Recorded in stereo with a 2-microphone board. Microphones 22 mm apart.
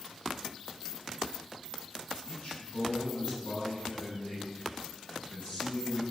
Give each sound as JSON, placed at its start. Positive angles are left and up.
{"t": 2.2, "sound": "a man speaking", "side_deg": 55, "distance_m": 5.5}